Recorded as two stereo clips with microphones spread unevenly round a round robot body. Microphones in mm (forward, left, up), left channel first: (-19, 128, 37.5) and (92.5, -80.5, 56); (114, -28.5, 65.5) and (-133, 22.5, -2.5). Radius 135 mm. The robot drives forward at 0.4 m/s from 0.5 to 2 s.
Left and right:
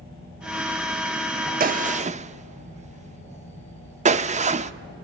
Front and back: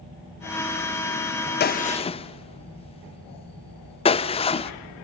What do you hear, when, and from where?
1.6 s a gunshot: 55° right, 0.6 m; by 4.7 s 85° right, 0.6 m